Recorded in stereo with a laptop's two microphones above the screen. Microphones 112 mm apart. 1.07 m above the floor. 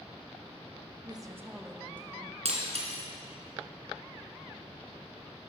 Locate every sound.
1.1 s a woman speaking: 40° right (ahead or behind), 1.2 m; by 2.4 s 25° left (ahead or behind), 1.6 m
2.5 s breaking glass: 70° right (ahead or behind), 2.5 m